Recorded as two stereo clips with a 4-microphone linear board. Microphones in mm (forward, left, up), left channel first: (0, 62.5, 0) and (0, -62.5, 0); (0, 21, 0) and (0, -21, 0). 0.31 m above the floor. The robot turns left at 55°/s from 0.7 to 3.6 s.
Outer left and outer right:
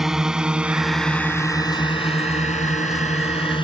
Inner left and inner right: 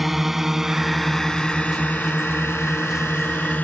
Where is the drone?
5° right (ahead or behind); by 3.6 s 45° left (ahead or behind).